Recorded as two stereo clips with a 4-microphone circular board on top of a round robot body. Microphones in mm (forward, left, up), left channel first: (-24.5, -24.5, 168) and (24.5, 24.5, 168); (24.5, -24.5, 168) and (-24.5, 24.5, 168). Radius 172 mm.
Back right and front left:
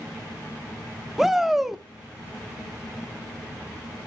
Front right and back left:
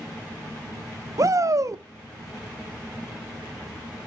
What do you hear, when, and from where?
1.2 s a shout: 130° left, 0.9 m